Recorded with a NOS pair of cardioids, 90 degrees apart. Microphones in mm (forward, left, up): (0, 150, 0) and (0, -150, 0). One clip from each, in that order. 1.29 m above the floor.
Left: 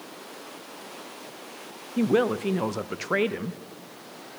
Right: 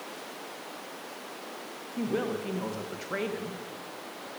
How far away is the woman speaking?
About 0.8 m.